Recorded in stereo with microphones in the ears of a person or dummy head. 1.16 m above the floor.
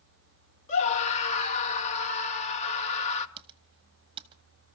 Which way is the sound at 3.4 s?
25° right (ahead or behind).